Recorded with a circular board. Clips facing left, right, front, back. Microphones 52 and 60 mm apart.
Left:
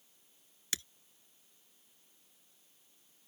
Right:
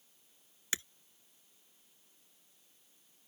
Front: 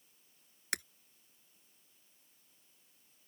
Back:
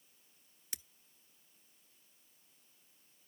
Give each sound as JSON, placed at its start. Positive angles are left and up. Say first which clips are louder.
{"t": 0.7, "sound": "breaking glass", "louder": "right 3 dB, front 15 dB", "azimuth_deg": -25}